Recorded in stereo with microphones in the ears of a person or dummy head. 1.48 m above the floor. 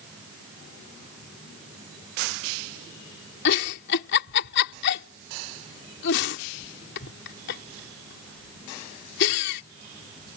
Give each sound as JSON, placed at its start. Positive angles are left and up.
{"t": 3.5, "sound": "a giggle", "side_deg": 65}